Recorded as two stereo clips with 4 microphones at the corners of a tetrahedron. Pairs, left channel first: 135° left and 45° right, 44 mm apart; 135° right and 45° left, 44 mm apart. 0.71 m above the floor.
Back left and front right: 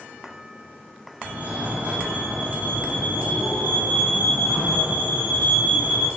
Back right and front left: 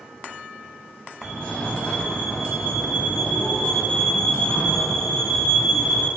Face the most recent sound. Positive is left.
turn(degrees=-75)